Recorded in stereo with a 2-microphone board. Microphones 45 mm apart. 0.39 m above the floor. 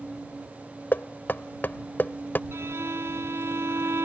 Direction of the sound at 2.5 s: 75° right (ahead or behind).